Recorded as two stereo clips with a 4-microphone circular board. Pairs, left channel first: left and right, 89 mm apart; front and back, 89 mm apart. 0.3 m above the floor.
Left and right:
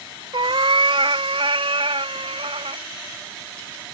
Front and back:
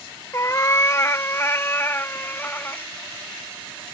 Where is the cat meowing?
60° right; by 2.9 s 70° right.